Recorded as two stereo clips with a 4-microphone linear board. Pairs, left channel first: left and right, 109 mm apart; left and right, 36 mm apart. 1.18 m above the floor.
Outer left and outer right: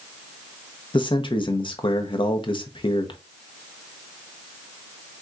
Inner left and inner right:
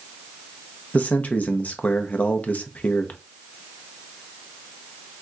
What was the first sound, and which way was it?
A man speaking, 50° left (ahead or behind).